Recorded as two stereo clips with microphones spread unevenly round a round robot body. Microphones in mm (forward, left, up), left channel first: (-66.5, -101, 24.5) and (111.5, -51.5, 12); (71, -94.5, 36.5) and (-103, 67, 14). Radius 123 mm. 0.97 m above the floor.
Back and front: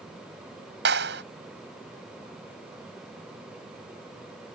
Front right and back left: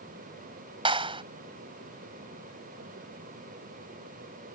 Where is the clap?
65° left.